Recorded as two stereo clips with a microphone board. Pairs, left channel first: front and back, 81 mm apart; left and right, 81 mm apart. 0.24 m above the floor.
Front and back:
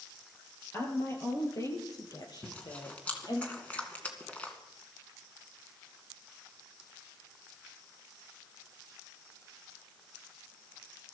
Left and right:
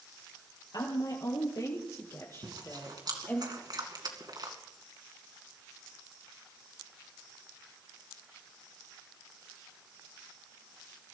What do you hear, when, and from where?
0.7 s a woman speaking: 60° left, 5 m; by 3.4 s 25° left, 6 m
2.4 s chewing: 70° right, 2.5 m